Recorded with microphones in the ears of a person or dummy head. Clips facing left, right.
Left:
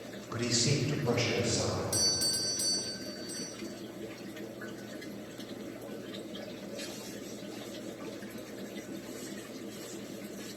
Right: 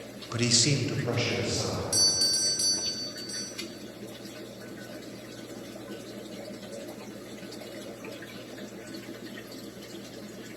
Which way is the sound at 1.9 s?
Centre (ahead or behind).